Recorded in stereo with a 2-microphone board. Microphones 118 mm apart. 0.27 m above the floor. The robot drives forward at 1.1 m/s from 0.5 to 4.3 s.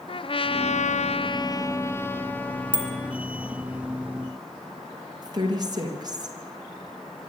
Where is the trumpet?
50° left (ahead or behind), 0.6 m; by 3.3 s 10° left (ahead or behind), 2.5 m.